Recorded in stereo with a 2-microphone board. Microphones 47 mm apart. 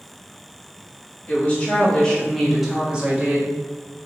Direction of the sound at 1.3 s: 35° left (ahead or behind).